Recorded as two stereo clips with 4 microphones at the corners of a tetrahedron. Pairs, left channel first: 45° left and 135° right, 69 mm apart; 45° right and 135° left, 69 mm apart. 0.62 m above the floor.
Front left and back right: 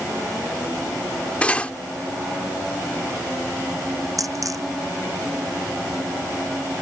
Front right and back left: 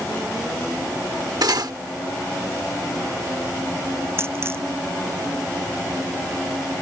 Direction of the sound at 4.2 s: 170° right.